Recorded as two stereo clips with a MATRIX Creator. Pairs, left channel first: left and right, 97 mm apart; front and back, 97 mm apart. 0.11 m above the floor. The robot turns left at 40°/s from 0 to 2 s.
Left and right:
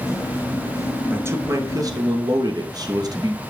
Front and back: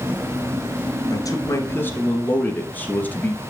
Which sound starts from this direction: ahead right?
A man speaking, at 1.1 s.